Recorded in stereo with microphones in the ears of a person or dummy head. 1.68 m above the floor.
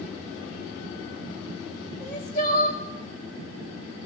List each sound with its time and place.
2.0 s crying: 40° left (ahead or behind), 2 m